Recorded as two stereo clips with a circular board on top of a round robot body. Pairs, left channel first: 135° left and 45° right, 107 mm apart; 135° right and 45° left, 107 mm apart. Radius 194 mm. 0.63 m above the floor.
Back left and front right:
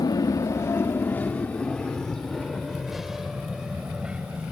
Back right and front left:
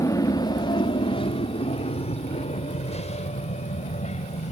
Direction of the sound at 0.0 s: 175° left.